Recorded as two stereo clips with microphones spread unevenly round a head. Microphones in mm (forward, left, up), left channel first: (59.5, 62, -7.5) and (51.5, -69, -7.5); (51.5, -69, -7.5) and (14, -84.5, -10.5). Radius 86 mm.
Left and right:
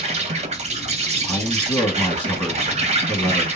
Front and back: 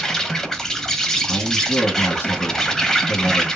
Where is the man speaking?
10° left, 1.9 m.